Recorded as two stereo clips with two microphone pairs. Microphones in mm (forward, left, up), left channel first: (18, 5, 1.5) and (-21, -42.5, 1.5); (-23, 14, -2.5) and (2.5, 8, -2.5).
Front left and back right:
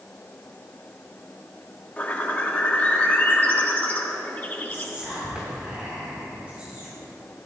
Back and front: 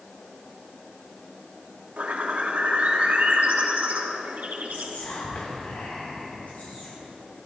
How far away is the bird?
About 1.6 m.